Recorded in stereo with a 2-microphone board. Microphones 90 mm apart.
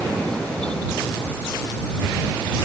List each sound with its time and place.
Only background noise.